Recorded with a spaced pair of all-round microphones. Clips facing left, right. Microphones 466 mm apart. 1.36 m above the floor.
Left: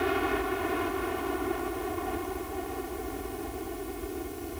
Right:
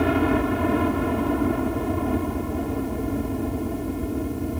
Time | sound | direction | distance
0.0 | a helicopter | 70° right (ahead or behind) | ?